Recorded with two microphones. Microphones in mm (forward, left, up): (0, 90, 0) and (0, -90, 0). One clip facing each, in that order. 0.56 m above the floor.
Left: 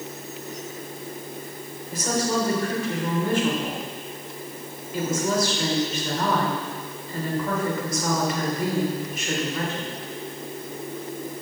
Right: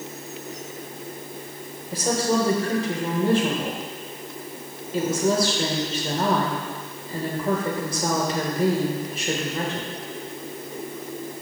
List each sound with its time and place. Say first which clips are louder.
1.9 s a woman speaking: right 2 dB; 30° right (ahead or behind), 1.8 m